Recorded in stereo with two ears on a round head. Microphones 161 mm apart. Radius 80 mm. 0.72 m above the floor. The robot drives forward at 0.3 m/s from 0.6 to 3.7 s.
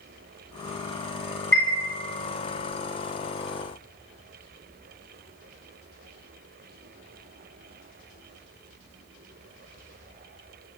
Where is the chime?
10° left (ahead or behind), 1.0 m.